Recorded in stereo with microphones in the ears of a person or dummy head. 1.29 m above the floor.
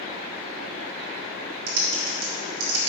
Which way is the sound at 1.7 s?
70° right (ahead or behind).